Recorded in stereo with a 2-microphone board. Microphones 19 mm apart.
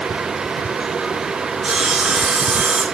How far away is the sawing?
About 7 m.